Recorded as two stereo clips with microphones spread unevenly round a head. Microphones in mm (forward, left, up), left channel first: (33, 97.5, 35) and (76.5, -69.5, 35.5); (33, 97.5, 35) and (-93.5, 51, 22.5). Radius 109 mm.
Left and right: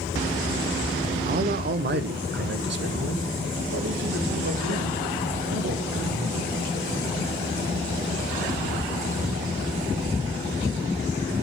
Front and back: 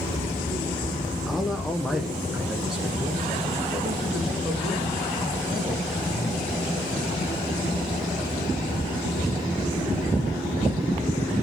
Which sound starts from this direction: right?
A man speaking, at 1.3 s.